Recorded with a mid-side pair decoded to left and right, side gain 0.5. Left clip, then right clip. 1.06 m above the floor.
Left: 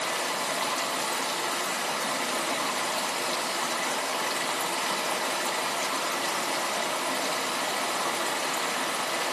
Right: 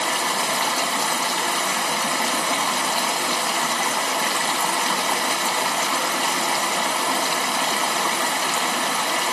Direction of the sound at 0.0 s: 65° right.